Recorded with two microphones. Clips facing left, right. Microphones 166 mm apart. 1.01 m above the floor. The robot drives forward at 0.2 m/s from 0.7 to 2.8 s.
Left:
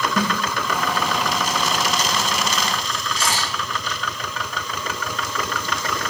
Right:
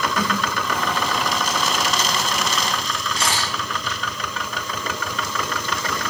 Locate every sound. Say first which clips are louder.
0.2 s a snare drum: left 4 dB; 60° left (ahead or behind), 1.5 m
3.2 s a camera shutter: even; 65° right (ahead or behind), 1.4 m